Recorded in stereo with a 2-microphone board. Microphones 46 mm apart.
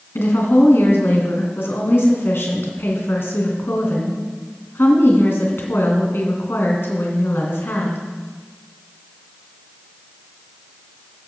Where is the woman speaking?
65° left (ahead or behind), 2.5 m.